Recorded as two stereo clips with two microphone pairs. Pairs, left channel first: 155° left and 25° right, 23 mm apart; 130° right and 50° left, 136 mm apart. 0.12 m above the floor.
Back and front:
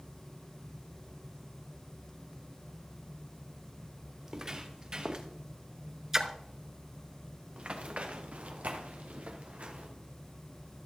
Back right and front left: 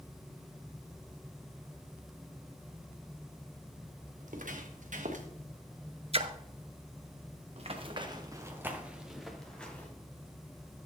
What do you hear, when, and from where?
4.2 s footsteps: 35° left, 2 m; by 5.3 s 25° left, 1.5 m
6.1 s a splash: 35° left, 0.6 m
7.6 s running footsteps: 15° left, 1.7 m; by 9.9 s 45° right, 2.5 m